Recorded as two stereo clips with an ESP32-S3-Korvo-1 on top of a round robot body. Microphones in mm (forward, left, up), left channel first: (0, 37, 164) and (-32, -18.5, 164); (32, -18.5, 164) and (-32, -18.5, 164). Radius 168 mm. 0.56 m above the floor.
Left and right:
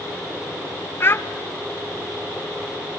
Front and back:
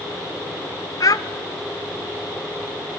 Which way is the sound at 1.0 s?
10° left.